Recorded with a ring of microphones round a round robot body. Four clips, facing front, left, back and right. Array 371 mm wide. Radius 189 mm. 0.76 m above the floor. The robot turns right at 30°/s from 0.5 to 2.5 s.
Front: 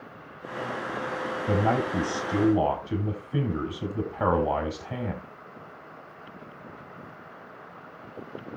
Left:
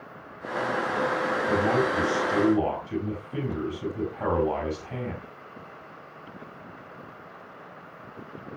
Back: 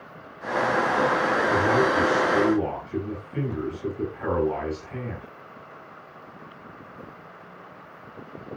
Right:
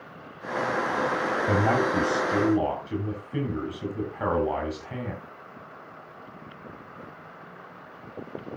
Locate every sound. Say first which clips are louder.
1.5 s a man speaking: right 1 dB, back 1 dB; 40° right, 7 m; by 5.2 s 10° right, 7 m